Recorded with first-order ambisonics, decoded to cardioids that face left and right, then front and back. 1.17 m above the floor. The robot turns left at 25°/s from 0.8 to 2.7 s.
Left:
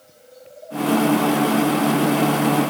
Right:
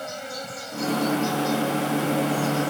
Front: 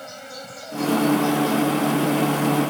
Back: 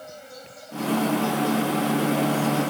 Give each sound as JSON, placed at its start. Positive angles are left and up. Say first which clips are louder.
{"t": 0.0, "sound": "an insect", "louder": "right 13 dB, front 5 dB", "azimuth_deg": -60}